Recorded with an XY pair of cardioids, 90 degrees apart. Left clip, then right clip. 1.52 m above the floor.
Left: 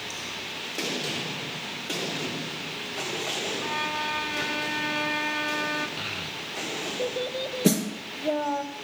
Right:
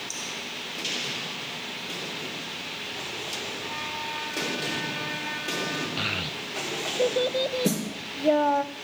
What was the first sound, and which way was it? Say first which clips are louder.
A violin: left 4 dB; 65° left.